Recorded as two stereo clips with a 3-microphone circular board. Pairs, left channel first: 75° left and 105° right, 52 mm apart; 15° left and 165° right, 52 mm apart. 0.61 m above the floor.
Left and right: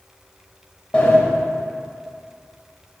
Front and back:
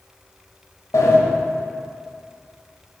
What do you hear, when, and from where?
0.9 s a sliding door: 5° left, 1.3 m